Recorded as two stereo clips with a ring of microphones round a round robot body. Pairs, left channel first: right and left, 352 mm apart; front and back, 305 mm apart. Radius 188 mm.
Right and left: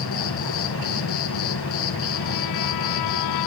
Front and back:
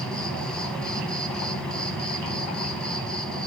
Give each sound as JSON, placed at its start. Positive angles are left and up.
{"t": 0.0, "sound": "an insect", "azimuth_deg": -85, "distance_m": 1.3}